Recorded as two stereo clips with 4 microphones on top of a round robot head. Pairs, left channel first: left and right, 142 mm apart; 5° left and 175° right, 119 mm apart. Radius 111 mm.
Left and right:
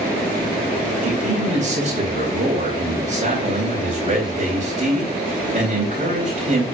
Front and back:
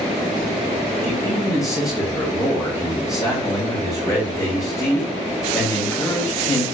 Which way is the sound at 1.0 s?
55° right.